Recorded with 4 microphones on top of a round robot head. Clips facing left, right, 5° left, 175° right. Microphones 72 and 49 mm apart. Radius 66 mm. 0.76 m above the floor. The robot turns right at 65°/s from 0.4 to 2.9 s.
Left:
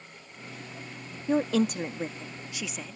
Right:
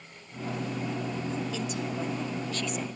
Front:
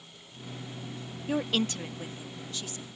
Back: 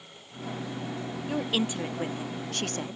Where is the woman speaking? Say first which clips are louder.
Left 7 dB, even; 85° left; by 3.0 s 170° right.